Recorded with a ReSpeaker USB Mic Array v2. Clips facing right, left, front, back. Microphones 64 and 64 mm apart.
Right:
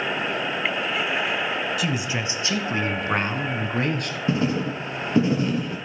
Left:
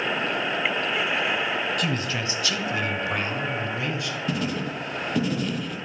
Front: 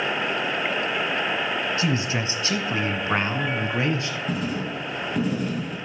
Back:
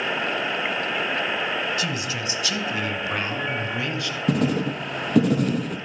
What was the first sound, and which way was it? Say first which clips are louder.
A man speaking: right 1 dB, front 3 dB; 10° right.